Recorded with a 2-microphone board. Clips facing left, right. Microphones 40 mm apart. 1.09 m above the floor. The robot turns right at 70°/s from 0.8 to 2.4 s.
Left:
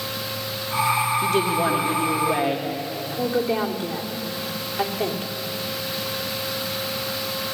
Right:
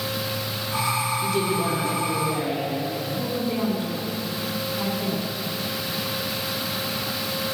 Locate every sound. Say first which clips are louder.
1.2 s a woman speaking: left 3 dB; 50° left, 1.7 m; by 2.7 s 135° left, 1.7 m
3.1 s a woman speaking: left 7 dB; 65° left (ahead or behind), 2.5 m